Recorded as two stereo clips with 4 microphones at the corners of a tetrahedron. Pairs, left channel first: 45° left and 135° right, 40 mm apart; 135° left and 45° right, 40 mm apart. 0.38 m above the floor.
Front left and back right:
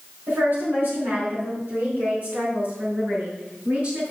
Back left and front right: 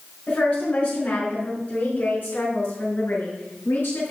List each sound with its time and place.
0.3 s a woman speaking: 170° right, 5 m; by 4.1 s 165° left, 5.5 m